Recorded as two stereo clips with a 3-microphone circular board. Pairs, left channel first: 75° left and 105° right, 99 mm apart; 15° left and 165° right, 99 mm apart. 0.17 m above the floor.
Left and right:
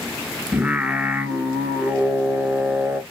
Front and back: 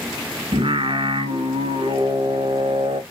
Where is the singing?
175° right, 1.1 m.